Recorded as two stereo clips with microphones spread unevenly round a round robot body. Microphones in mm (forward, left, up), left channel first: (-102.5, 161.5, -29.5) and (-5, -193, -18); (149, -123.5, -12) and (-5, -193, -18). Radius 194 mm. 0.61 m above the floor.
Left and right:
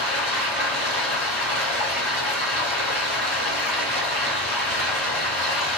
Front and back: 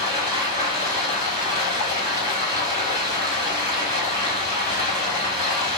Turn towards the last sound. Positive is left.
turn(degrees=45)